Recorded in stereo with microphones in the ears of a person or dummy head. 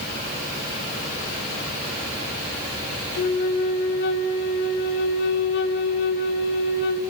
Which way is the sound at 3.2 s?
60° left (ahead or behind).